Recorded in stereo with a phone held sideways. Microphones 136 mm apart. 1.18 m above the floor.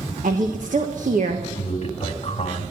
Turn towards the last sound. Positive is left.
turn(degrees=55)  # may be behind; listen again after turning